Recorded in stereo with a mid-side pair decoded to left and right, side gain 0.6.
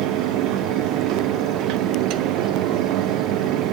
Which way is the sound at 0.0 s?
70° right.